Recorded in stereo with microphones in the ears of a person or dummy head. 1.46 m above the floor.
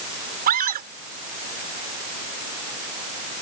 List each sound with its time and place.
0.5 s a scream: 50° right (ahead or behind)